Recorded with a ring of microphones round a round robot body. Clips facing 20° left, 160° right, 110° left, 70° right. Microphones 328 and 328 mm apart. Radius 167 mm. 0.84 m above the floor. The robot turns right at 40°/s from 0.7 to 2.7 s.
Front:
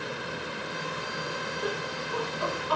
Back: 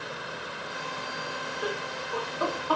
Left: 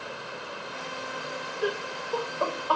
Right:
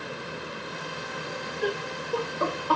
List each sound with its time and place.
1.6 s laughter: 170° right, 1.5 m; by 2.8 s 125° right, 1.5 m